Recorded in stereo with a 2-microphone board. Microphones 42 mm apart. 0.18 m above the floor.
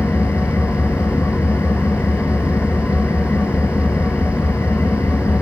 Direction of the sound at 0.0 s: 65° left (ahead or behind).